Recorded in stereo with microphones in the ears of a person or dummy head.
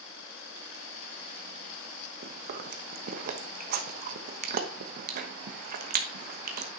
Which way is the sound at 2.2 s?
50° right (ahead or behind).